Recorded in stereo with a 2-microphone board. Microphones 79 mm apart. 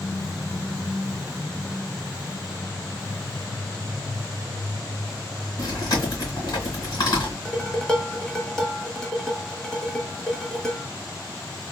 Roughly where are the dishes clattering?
Centre.